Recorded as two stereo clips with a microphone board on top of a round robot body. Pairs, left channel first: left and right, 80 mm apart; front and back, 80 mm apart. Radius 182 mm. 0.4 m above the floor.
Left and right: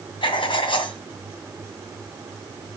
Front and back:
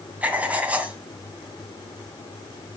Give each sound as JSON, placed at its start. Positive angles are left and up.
{"t": 0.2, "sound": "writing", "azimuth_deg": 105, "distance_m": 2.0}